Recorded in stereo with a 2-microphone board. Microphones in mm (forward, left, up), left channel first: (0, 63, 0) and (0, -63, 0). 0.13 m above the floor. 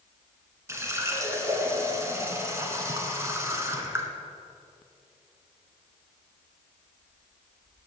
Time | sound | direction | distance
0.7 | a running tap | 20° right (ahead or behind) | 1.0 m